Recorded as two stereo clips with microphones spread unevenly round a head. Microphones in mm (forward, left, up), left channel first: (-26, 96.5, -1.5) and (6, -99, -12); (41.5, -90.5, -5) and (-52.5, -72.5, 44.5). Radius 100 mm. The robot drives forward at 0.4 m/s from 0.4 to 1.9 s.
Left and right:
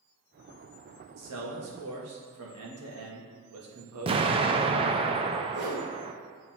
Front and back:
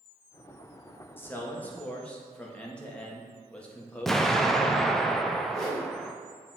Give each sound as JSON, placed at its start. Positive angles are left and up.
{"t": 1.2, "sound": "a man speaking", "azimuth_deg": -80, "distance_m": 1.8}
{"t": 4.1, "sound": "an explosion", "azimuth_deg": -135, "distance_m": 0.5}
{"t": 5.5, "sound": "a whoosh", "azimuth_deg": -110, "distance_m": 2.5}